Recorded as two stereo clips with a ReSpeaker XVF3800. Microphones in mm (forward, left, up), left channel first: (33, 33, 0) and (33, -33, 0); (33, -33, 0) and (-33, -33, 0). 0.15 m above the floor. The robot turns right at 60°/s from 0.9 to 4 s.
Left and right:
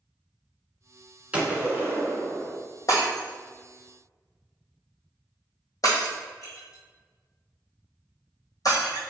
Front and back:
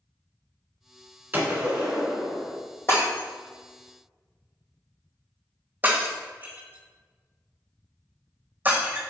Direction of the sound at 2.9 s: 50° left.